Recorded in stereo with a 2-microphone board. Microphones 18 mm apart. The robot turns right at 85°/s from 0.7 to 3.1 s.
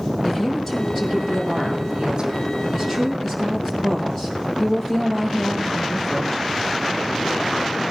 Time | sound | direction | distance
0.2 | a woman speaking | 175° left | 5 m